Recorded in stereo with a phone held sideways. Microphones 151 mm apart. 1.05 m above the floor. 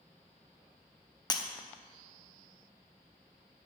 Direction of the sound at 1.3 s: 25° left (ahead or behind).